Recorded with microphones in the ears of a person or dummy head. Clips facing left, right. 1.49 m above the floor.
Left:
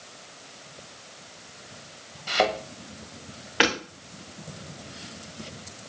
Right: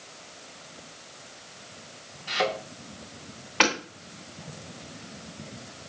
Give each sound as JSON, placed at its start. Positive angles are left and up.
{"t": 2.3, "sound": "a thud", "side_deg": 75, "distance_m": 3.0}
{"t": 3.6, "sound": "hammering", "side_deg": 10, "distance_m": 2.5}